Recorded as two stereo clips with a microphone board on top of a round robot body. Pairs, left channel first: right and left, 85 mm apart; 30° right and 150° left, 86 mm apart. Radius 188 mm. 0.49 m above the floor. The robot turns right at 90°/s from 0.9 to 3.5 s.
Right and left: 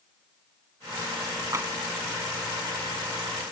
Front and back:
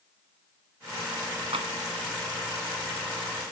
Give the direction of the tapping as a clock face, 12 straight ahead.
7 o'clock.